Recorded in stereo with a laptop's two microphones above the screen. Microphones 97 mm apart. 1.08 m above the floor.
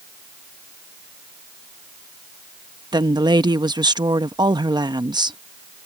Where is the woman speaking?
50° right (ahead or behind).